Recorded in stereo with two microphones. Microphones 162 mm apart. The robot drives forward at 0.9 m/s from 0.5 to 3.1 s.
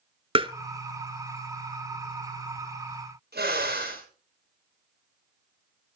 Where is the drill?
80° right, 5.5 m.